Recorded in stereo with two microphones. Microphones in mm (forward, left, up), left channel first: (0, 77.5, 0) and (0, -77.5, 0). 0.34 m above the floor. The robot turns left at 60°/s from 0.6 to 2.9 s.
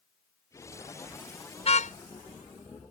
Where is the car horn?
40° left (ahead or behind); by 1.9 s 60° left (ahead or behind).